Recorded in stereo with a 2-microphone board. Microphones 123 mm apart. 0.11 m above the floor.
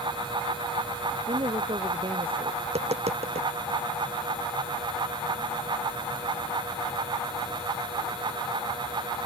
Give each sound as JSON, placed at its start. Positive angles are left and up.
{"t": 1.3, "sound": "a woman speaking", "side_deg": -45}
{"t": 2.6, "sound": "tapping", "side_deg": -60}